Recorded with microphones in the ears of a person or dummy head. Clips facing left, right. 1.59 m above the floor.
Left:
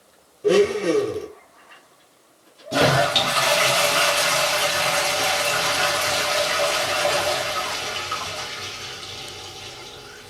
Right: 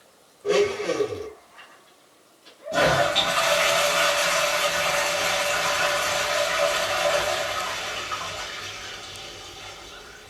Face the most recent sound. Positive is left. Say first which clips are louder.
# left 2 dB
turn(degrees=55)  # may be behind; listen again after turning